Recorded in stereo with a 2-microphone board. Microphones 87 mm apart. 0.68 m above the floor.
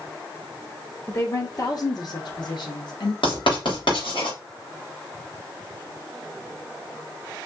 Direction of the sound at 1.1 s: 35° left (ahead or behind).